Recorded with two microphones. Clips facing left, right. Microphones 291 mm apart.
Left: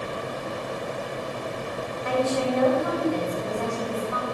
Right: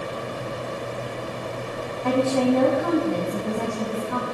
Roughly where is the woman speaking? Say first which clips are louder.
Right 5 dB; right.